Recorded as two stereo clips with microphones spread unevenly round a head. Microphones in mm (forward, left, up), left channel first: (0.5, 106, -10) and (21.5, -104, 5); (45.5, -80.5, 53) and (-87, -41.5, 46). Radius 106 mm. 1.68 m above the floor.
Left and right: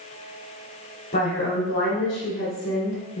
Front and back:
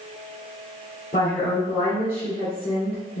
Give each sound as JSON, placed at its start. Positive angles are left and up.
{"t": 1.1, "sound": "a woman speaking", "azimuth_deg": 40, "distance_m": 1.1}